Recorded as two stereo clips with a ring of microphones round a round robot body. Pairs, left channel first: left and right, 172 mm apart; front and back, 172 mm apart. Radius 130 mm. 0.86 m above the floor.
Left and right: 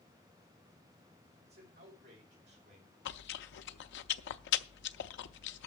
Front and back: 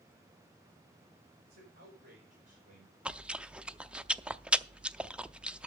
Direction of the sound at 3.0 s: 95° left.